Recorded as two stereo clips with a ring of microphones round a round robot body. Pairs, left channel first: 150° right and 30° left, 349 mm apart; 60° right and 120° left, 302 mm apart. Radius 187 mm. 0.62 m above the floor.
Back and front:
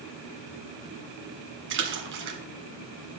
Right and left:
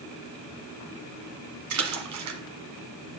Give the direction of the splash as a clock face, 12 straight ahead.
9 o'clock.